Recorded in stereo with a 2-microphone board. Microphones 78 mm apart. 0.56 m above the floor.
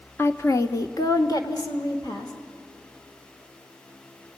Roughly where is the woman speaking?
Left.